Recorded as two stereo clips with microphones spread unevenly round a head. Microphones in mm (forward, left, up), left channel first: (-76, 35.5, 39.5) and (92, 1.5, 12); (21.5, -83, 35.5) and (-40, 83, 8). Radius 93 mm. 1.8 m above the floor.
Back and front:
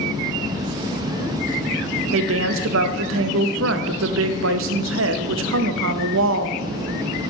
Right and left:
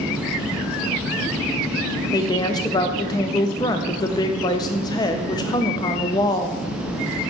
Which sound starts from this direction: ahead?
A woman speaking, at 2.1 s.